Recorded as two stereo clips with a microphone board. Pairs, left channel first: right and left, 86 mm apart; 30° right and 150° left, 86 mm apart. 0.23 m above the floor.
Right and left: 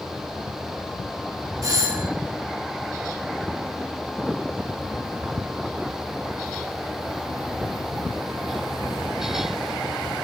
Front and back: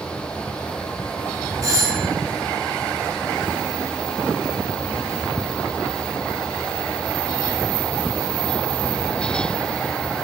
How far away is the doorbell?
About 3 m.